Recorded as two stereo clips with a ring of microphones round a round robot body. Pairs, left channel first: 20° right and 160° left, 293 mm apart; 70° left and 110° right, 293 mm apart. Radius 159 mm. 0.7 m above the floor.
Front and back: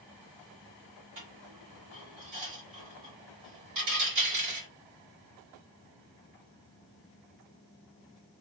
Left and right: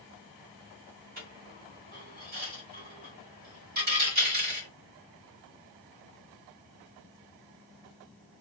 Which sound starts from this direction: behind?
A dropped coin, at 1.2 s.